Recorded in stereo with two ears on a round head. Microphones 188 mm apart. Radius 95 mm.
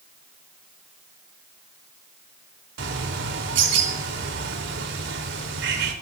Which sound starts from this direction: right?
A bird, at 2.8 s.